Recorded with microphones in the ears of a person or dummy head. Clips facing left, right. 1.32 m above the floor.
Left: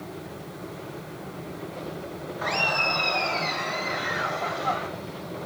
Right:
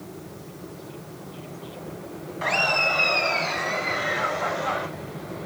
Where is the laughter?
45° right (ahead or behind), 1.5 m; by 4.9 s 80° right, 5 m.